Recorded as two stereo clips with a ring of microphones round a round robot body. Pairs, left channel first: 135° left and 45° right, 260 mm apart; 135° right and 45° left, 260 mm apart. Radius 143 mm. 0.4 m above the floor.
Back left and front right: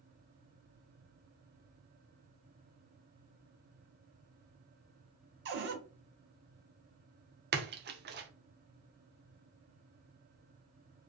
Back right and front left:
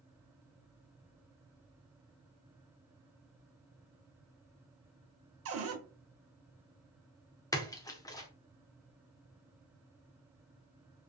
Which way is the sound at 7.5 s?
65° right.